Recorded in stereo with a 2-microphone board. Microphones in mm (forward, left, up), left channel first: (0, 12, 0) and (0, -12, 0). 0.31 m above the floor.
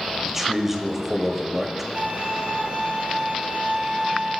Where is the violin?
70° right (ahead or behind), 3 m.